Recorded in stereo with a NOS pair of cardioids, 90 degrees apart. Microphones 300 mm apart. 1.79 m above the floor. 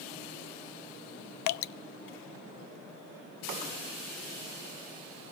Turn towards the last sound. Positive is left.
turn(degrees=70)